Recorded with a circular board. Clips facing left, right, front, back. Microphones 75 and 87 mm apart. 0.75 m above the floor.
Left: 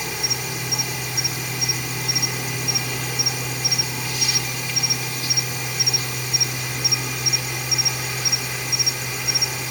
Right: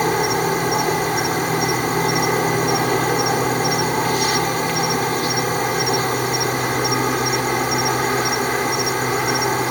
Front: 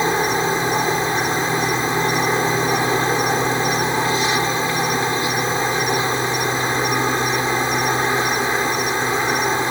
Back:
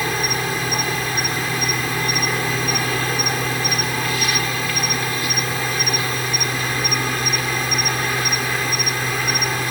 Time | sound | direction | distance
0.0 | an insect | 65° right | ?